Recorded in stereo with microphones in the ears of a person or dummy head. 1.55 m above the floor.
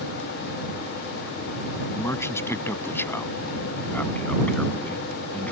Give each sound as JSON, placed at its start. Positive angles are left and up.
{"t": 1.9, "sound": "a man speaking", "side_deg": 10}